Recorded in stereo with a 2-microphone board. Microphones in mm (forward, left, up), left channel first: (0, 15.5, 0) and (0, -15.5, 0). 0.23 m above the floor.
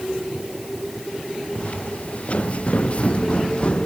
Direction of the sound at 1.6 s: 45° left (ahead or behind).